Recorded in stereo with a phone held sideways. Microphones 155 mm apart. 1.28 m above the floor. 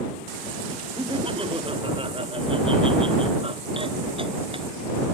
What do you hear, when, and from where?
1.0 s laughter: 35° right (ahead or behind)